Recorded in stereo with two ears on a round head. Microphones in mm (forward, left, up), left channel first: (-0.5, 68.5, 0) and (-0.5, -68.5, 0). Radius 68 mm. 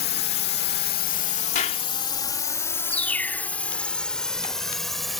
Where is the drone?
70° left (ahead or behind); by 5.2 s centre (ahead or behind).